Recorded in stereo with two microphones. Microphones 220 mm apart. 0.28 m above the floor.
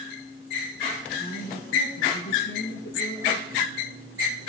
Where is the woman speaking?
60° left (ahead or behind), 3 m.